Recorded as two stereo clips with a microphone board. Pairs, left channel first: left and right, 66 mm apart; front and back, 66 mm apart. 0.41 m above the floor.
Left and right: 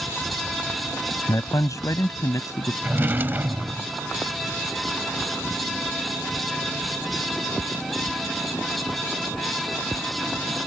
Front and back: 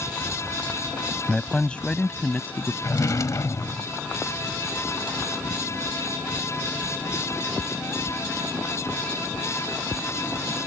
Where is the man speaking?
80° left; by 2.7 s 60° left.